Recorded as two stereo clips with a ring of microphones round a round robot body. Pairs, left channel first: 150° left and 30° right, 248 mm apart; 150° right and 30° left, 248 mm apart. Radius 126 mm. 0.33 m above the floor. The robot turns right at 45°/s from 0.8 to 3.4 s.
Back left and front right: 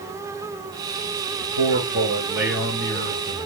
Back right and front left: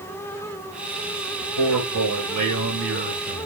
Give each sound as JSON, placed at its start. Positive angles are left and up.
{"t": 1.4, "sound": "a man speaking", "azimuth_deg": 5, "distance_m": 4.0}